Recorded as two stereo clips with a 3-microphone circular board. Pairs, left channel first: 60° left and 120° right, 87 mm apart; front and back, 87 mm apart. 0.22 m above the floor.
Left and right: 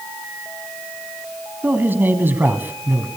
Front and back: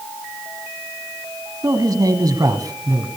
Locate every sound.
1.6 s a man speaking: 175° right, 1.5 m